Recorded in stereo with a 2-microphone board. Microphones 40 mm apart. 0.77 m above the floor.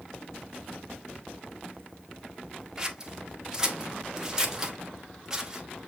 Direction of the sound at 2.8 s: 15° right (ahead or behind).